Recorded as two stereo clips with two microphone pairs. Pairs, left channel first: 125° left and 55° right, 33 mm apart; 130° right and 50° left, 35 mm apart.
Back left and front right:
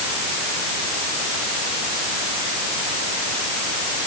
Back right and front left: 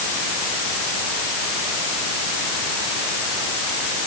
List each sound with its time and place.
Only background noise.